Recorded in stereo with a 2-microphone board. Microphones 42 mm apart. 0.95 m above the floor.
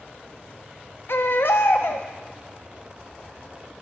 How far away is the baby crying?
About 0.5 m.